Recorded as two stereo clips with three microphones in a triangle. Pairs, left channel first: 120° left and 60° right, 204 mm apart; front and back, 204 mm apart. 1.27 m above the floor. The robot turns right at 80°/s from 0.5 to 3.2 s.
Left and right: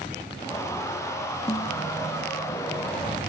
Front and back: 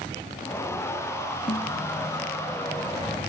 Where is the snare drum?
50° left; by 1.8 s 75° left.